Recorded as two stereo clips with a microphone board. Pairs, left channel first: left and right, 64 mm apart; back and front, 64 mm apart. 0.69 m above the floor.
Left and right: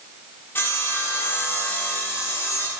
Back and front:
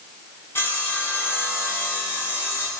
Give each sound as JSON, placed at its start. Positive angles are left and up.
{"t": 0.6, "sound": "sawing", "azimuth_deg": 135, "distance_m": 1.6}